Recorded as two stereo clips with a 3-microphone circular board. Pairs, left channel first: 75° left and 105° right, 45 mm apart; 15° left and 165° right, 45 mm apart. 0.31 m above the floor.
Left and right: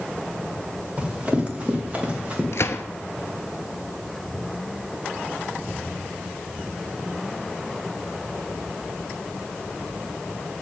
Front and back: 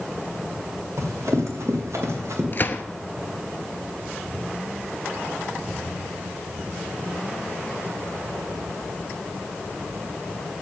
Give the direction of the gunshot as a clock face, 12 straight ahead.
10 o'clock.